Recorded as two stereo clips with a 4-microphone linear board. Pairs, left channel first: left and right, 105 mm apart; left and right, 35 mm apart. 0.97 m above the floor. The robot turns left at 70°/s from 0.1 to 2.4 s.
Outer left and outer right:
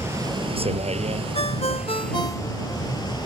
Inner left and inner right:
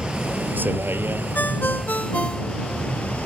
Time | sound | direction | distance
0.0 | a vehicle | 25° right (ahead or behind) | ?
1.4 | a ringtone | 100° left | ?